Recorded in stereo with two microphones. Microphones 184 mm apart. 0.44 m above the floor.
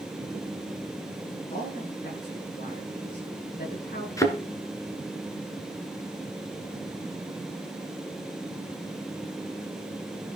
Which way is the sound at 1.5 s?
50° left (ahead or behind).